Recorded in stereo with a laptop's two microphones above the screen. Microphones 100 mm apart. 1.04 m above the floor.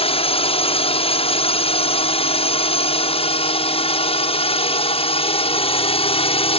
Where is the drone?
60° left (ahead or behind).